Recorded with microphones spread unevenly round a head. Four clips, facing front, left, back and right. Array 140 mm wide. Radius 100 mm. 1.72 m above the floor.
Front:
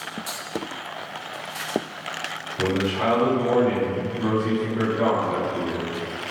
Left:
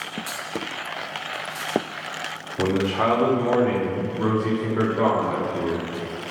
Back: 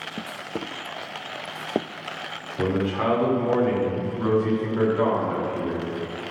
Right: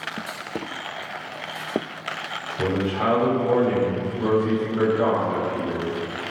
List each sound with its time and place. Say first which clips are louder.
2.6 s a man speaking: left 2 dB, even; 110° left, 5.5 m; by 5.8 s 105° left, 7 m